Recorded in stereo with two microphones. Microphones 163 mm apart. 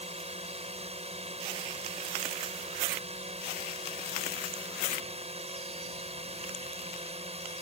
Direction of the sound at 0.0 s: 40° right (ahead or behind).